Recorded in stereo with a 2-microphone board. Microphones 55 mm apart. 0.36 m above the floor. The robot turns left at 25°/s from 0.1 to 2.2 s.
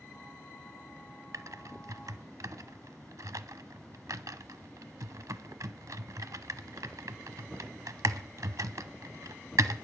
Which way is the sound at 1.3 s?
75° right (ahead or behind).